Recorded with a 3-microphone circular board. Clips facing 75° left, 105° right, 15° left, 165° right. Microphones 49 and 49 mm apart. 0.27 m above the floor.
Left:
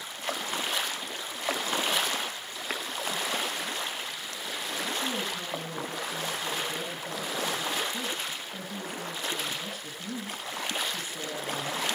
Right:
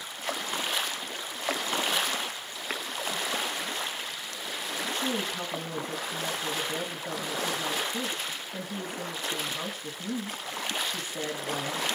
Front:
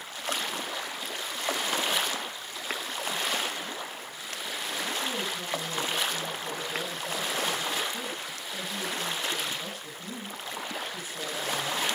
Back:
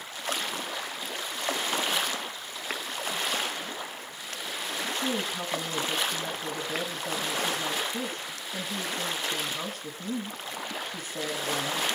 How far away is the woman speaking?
About 3 m.